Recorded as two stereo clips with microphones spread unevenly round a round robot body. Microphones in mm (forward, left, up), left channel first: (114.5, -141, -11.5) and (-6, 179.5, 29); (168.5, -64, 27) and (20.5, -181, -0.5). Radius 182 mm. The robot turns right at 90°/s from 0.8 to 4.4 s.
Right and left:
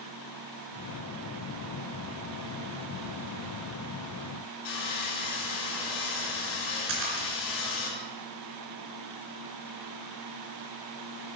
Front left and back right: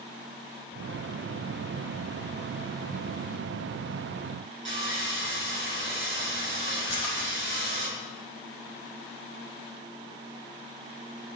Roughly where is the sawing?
Behind right.